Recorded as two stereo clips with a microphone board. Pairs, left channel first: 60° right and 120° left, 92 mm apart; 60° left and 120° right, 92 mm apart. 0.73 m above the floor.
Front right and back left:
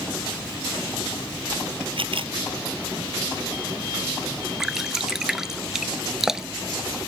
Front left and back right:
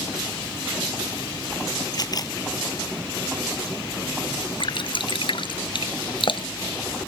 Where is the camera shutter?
105° left.